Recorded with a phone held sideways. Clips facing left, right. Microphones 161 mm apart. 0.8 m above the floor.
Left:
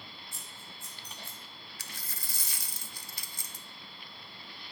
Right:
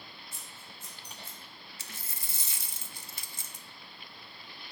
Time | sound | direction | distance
0.3 | scissors | 25° right (ahead or behind) | 3.5 m
1.8 | a dropped coin | 25° right (ahead or behind) | 0.6 m